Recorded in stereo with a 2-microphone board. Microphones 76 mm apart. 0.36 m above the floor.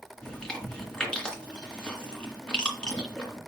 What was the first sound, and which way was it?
Chewing, 15° left (ahead or behind).